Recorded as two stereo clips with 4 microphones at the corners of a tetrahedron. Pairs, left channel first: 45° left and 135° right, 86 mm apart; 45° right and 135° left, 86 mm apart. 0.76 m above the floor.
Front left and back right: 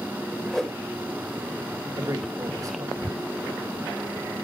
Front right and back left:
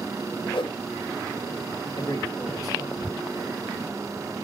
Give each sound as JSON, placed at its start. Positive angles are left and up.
{"t": 0.5, "sound": "a whoosh", "azimuth_deg": -40, "distance_m": 1.0}
{"t": 2.0, "sound": "a man speaking", "azimuth_deg": -90, "distance_m": 2.5}